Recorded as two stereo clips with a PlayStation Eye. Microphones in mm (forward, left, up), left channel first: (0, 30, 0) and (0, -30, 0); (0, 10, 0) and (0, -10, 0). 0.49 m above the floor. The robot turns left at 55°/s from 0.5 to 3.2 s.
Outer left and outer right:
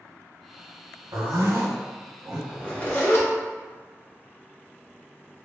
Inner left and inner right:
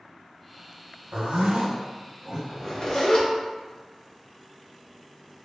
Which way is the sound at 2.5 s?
155° left.